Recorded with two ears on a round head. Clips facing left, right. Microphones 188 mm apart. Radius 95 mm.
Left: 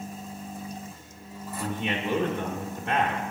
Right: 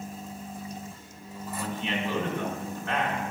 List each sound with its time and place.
1.6 s a man speaking: 20° left (ahead or behind), 0.9 m